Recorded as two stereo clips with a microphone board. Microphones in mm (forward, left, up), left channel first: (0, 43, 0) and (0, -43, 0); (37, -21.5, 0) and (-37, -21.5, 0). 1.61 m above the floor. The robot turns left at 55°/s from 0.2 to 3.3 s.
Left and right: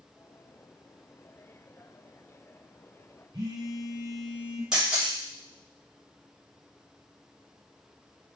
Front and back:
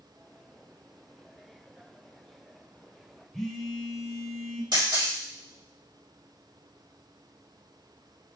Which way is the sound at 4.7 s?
170° right.